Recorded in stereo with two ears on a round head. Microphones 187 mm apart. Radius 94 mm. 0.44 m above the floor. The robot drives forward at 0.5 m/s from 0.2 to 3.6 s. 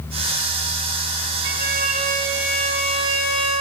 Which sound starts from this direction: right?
A violin, at 1.4 s.